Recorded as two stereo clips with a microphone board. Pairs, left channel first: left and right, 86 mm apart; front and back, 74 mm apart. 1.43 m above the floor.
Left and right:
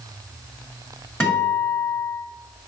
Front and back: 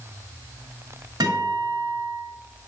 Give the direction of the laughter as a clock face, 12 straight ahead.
No laughter in this recording.